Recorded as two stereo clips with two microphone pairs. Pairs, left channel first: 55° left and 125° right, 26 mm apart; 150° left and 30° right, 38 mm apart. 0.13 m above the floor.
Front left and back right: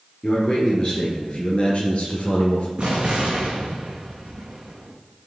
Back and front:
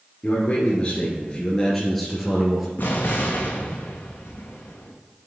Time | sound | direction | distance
0.2 | a man speaking | 110° left | 2 m
2.8 | an explosion | straight behind | 1.6 m